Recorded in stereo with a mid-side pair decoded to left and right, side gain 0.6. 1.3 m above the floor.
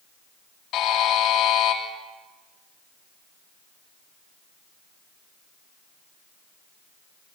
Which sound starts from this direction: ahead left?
A buzzer, at 0.7 s.